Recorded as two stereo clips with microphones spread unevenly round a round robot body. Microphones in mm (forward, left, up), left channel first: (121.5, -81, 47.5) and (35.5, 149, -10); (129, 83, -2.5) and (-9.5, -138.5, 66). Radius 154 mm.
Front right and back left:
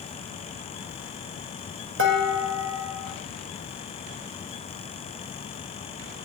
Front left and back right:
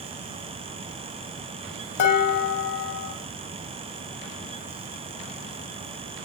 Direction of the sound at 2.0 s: 75° left.